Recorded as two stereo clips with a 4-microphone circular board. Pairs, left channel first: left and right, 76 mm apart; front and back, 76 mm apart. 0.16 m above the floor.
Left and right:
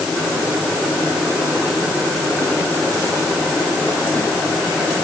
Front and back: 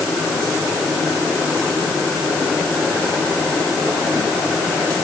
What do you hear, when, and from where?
Only background noise.